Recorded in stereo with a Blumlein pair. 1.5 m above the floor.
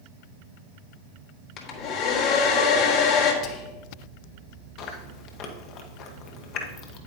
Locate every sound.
1.6 s a hair dryer: 35° left, 1.5 m
3.4 s whispering: 35° left, 1.2 m
4.8 s chewing: 35° left, 1.2 m